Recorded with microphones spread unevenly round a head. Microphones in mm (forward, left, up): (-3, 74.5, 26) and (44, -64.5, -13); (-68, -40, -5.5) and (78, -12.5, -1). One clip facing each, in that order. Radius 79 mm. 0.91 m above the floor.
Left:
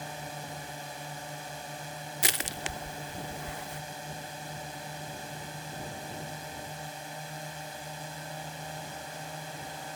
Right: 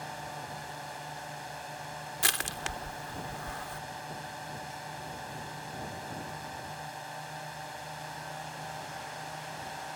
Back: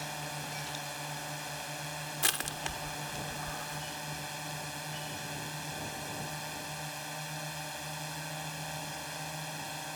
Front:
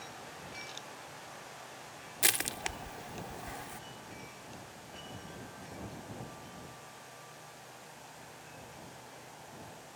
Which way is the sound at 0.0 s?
170° left.